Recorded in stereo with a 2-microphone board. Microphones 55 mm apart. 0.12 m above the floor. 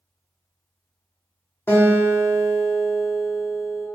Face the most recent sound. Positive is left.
turn(degrees=40)  # may be behind; listen again after turning